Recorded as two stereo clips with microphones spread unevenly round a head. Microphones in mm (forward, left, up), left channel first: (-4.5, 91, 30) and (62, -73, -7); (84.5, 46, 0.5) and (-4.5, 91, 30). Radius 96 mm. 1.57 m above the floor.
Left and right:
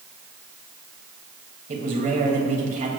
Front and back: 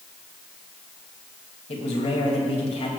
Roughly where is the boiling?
I don't hear boiling.